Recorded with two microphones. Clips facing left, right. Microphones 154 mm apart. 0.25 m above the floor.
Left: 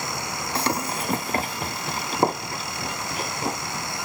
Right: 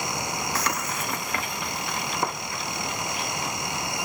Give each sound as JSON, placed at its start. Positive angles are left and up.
{"t": 0.6, "sound": "running footsteps", "side_deg": 30}